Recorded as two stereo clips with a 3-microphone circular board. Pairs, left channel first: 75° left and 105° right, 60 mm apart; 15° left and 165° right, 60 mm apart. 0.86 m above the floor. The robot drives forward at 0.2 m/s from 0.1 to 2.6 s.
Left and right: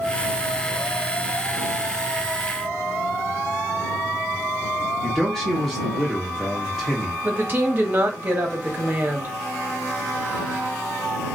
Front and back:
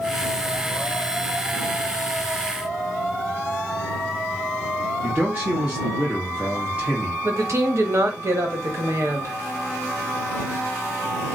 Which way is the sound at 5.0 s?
145° left.